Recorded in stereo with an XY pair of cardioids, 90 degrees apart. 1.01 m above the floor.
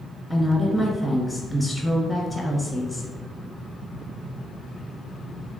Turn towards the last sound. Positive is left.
turn(degrees=5)